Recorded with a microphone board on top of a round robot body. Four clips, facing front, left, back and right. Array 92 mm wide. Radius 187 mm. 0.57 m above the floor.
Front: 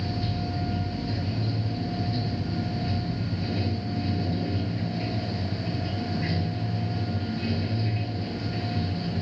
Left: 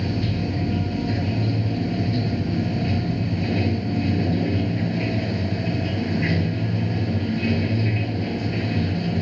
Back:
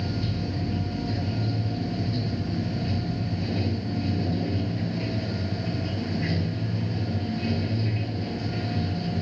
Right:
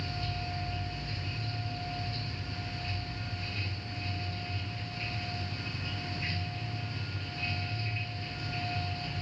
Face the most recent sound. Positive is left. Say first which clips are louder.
# left 12 dB, back 1 dB
turn(degrees=95)